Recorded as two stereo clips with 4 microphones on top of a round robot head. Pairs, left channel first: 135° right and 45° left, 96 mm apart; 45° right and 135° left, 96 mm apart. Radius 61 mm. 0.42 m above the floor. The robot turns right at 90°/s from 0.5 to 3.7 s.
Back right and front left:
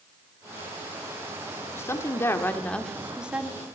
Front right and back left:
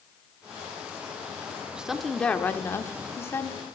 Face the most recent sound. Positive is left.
turn(degrees=20)